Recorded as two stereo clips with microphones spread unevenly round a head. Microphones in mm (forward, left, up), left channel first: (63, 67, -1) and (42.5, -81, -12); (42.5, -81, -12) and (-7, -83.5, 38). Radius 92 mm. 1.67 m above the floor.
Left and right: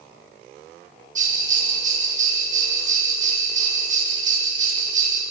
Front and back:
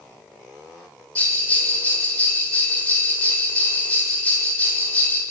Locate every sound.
1.1 s a bell: 60° right, 8 m